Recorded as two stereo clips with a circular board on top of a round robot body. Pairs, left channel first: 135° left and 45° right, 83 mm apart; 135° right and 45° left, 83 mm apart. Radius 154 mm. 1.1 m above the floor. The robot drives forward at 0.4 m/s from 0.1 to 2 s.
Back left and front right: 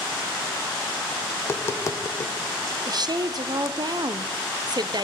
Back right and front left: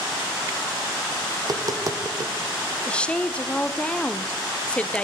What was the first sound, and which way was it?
Tapping, 75° left.